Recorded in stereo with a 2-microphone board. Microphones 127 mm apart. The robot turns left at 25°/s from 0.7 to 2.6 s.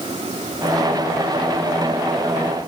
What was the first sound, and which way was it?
Only background noise.